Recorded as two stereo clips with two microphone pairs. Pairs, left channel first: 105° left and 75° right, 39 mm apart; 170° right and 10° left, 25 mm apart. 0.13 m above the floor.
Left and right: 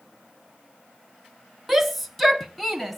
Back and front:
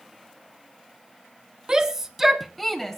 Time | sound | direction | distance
1.7 | a shout | 10° left | 1.2 m